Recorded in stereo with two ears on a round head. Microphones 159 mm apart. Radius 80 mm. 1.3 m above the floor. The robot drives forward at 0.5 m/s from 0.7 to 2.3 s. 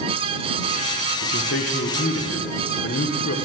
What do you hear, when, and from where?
1.2 s a man speaking: 70° left (ahead or behind), 1.1 m; by 3.4 s 65° left (ahead or behind), 1.1 m